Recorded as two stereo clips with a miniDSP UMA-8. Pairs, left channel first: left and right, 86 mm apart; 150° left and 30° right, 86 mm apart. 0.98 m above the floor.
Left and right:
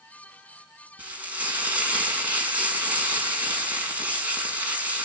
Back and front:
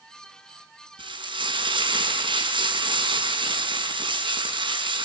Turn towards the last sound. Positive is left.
turn(degrees=-20)